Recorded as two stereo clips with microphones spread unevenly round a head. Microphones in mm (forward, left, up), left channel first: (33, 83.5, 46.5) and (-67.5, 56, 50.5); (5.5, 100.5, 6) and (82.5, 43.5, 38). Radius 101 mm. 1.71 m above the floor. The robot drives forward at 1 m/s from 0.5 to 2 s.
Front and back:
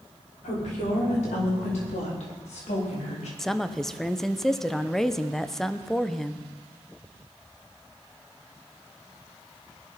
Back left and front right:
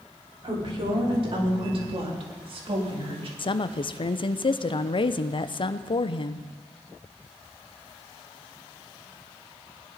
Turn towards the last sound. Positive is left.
turn(degrees=100)